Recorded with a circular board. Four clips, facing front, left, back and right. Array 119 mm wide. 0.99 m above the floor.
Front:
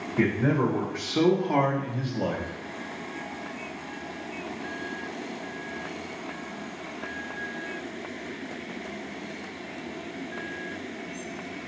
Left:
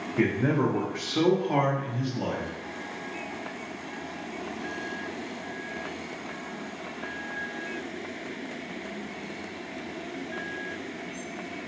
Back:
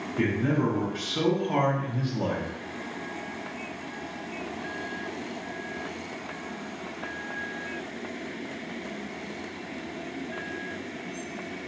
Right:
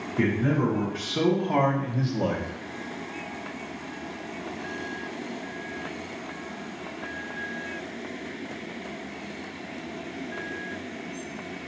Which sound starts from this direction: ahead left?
A man speaking, at 0.2 s.